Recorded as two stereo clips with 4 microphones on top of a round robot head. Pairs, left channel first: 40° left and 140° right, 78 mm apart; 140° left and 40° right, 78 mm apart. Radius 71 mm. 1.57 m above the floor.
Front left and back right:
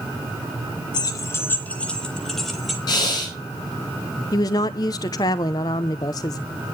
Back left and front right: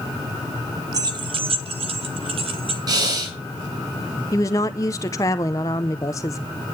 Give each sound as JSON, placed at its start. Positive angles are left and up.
{"t": 0.9, "sound": "keys jangling", "azimuth_deg": 5, "distance_m": 0.7}
{"t": 2.9, "sound": "breathing", "azimuth_deg": 0, "distance_m": 4.0}
{"t": 4.3, "sound": "a woman speaking", "azimuth_deg": 85, "distance_m": 0.6}